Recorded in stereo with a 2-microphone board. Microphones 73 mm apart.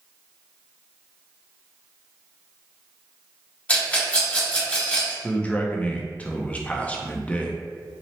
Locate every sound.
3.7 s a rattle: 20° left (ahead or behind), 1.4 m
5.2 s a man speaking: 20° left (ahead or behind), 0.5 m